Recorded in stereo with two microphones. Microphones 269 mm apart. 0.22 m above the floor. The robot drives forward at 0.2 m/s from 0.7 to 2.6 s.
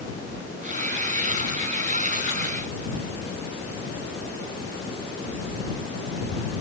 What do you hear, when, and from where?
Only background noise.